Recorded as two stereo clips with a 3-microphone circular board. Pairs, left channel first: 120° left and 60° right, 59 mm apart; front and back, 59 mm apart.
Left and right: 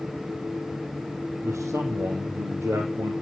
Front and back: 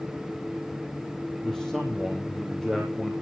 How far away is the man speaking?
About 3.5 m.